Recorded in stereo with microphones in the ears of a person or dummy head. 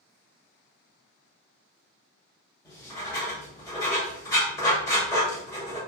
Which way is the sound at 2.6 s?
15° left (ahead or behind).